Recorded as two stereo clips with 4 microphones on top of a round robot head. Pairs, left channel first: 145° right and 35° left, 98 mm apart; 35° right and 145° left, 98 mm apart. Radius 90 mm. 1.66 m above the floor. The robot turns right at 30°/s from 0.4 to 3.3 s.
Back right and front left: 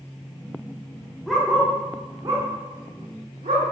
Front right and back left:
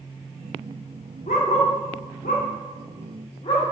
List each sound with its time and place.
1.3 s a dog barking: 55° right, 1.9 m; by 3.6 s 5° left, 1.9 m